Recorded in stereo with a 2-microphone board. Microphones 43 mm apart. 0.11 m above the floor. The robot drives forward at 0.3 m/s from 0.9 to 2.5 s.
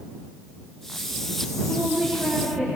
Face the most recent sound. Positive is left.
turn(degrees=-45)  # may be behind; listen again after turning